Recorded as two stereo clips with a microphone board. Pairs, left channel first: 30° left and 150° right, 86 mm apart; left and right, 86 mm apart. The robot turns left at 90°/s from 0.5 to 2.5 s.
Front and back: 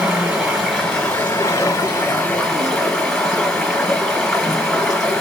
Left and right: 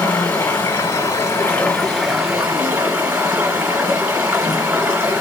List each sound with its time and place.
0.0 s running water: 135° left, 1.6 m; by 5.2 s 45° right, 1.6 m